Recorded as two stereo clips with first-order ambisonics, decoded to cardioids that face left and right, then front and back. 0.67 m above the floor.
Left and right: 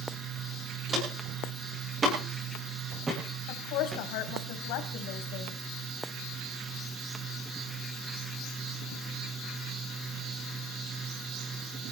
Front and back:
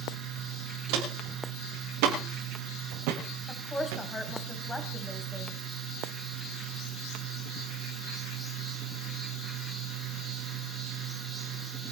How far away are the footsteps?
About 9.5 m.